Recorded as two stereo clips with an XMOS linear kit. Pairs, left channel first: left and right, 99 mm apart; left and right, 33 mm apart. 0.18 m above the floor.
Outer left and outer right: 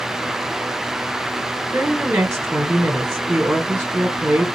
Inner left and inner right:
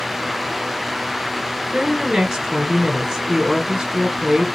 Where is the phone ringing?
I don't hear a phone ringing.